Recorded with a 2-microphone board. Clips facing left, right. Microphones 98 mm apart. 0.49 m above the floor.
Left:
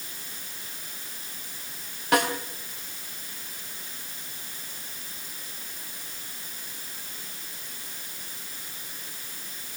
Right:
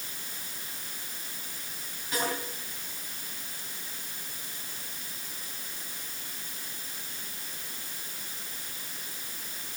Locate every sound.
2.1 s a snare drum: 75° left (ahead or behind), 4 m